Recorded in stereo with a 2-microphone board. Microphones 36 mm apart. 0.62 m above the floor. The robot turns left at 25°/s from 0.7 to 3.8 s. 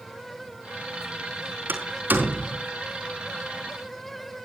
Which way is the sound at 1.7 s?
70° right (ahead or behind).